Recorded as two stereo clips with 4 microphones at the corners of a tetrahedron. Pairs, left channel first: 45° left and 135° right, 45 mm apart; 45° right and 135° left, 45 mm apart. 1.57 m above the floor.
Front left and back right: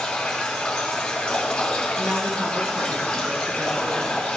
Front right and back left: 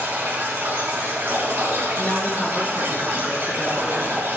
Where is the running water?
110° left, 3.5 m.